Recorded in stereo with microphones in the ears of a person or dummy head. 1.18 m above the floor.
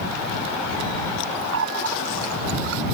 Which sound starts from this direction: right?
A running tap, at 1.5 s.